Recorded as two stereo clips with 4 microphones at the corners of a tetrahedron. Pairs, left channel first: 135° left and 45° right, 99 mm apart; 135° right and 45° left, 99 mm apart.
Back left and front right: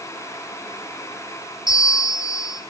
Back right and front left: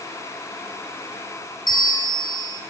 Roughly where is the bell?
Behind.